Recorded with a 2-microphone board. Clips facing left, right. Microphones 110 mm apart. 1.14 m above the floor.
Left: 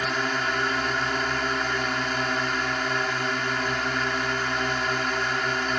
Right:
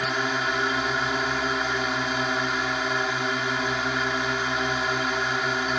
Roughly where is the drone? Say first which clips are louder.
Even; centre.